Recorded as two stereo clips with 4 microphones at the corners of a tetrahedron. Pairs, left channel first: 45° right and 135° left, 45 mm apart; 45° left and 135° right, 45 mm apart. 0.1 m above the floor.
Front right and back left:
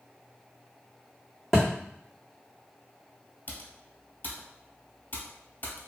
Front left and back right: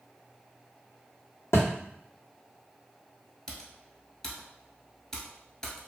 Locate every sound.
1.5 s a thud: 50° left, 1.1 m
3.5 s typing on a keyboard: 30° right, 0.9 m